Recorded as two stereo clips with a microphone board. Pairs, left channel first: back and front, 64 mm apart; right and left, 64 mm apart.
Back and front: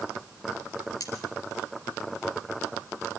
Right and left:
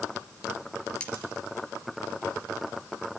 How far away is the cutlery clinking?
About 3 m.